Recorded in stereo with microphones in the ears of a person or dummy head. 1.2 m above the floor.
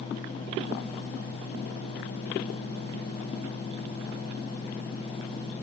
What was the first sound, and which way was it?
Only background noise.